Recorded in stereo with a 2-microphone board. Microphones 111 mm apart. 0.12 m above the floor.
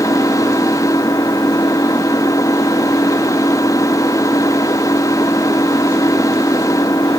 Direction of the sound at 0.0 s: 30° left (ahead or behind).